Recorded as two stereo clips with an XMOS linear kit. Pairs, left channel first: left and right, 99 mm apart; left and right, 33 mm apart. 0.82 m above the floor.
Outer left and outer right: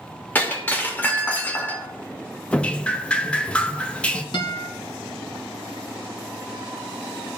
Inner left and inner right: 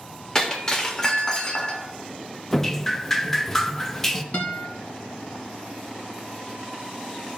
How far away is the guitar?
About 1.7 m.